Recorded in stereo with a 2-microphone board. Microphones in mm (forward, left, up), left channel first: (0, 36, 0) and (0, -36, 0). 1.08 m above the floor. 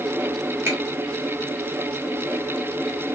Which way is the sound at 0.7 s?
35° right (ahead or behind).